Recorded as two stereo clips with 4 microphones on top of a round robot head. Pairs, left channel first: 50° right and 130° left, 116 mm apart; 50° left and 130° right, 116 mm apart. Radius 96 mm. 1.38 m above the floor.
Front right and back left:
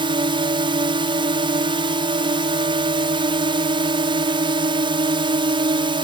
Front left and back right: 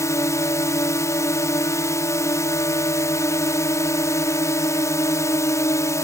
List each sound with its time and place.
0.0 s a drone: 105° left